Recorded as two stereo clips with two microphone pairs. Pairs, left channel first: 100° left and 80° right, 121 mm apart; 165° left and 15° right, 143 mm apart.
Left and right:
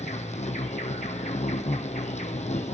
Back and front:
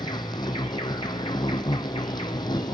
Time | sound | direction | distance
0.0 | an insect | 105° left | 1.0 m